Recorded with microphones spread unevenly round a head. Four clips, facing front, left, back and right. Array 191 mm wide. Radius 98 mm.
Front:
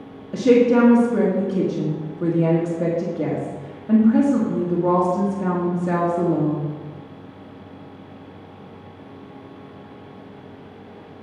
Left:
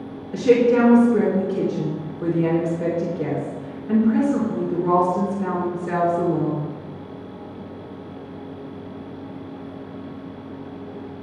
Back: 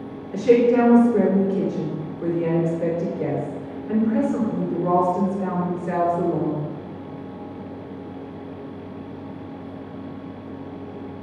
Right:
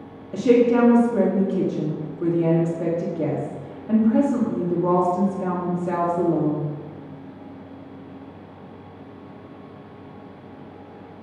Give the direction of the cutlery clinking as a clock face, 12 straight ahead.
No cutlery clinking in this recording.